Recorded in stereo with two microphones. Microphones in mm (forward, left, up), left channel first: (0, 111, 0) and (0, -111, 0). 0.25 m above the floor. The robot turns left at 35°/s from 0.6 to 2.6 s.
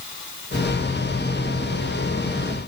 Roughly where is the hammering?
I don't hear hammering.